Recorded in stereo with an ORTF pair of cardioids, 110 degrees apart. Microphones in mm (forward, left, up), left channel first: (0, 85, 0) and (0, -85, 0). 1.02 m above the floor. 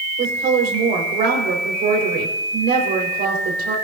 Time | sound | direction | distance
0.2 | a woman speaking | 70° right | 4.5 m